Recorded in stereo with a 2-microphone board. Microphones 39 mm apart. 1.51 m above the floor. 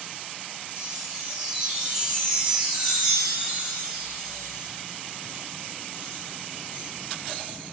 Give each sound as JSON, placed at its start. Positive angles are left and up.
{"t": 0.7, "sound": "a chime", "side_deg": -25, "distance_m": 1.8}